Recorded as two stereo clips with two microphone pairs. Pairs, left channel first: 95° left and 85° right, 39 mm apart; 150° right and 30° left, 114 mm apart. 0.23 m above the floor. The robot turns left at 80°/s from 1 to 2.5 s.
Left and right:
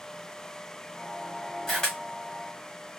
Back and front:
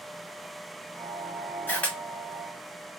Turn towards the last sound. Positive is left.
turn(degrees=100)